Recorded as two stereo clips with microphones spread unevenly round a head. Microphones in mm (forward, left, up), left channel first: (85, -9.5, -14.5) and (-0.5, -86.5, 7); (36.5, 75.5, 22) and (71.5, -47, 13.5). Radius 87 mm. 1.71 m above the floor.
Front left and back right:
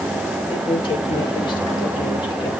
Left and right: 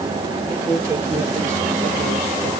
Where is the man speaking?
5° right, 6 m.